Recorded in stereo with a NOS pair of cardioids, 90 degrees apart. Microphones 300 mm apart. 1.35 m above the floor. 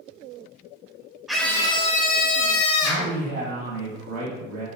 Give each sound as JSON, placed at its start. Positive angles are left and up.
{"t": 1.3, "sound": "a scream", "azimuth_deg": 0, "distance_m": 0.9}
{"t": 2.8, "sound": "a man speaking", "azimuth_deg": -60, "distance_m": 1.9}